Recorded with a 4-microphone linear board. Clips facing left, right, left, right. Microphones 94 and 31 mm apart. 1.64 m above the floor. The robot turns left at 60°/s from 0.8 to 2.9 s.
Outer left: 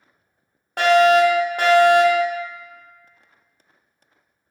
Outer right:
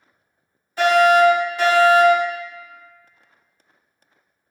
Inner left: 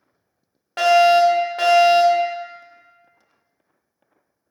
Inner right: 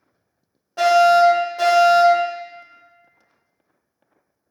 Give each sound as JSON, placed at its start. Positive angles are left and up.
{"t": 0.8, "sound": "a fire alarm", "azimuth_deg": 105, "distance_m": 1.2}